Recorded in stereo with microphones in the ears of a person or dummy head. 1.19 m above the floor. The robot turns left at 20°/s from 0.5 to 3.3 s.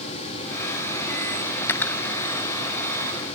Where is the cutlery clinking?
15° left (ahead or behind), 0.6 m; by 2.0 s 10° left (ahead or behind), 0.6 m.